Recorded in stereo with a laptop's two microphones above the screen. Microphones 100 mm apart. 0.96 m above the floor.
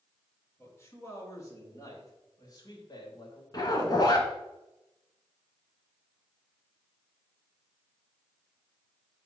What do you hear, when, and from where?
0.6 s a man speaking: 30° left (ahead or behind), 4.5 m; by 3.4 s 50° left (ahead or behind), 3 m
3.5 s a zipper: 45° left (ahead or behind), 1.6 m